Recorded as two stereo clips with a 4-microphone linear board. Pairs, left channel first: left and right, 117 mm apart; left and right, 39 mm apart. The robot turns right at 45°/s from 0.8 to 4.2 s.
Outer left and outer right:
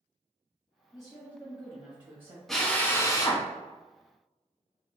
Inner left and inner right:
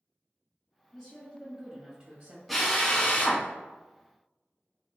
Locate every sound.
0.9 s a woman speaking: 175° left, 1.0 m; by 2.4 s 120° right, 1.0 m
2.5 s a drill: centre (ahead or behind), 0.7 m; by 5.0 s 55° left (ahead or behind), 0.7 m